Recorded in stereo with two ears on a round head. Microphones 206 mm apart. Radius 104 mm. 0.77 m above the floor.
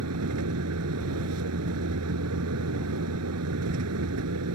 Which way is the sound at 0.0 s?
80° right.